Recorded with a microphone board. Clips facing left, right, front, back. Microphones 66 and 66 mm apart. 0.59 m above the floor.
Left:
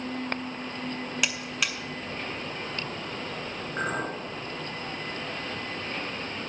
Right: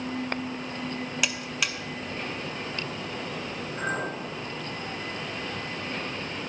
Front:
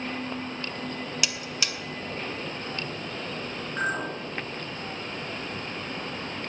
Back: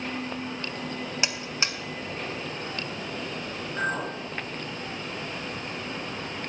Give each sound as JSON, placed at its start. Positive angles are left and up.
{"t": 1.2, "sound": "a buzzer", "azimuth_deg": 180, "distance_m": 0.7}
{"t": 3.8, "sound": "a clink", "azimuth_deg": 80, "distance_m": 5.0}